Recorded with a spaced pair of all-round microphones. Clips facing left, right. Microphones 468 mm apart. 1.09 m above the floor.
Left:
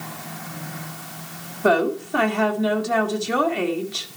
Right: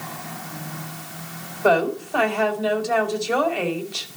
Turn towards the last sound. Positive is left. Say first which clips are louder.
# even
turn(degrees=35)  # may be behind; listen again after turning